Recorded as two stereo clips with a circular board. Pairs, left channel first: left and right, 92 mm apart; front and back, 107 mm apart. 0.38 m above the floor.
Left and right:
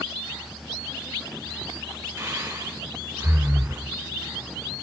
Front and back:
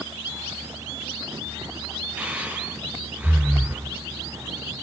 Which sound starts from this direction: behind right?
Breathing, at 2.2 s.